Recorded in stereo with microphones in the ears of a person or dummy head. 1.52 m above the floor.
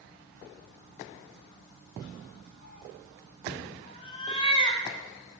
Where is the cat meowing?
50° left (ahead or behind), 2.5 m; by 4.8 s 25° left (ahead or behind), 2.5 m.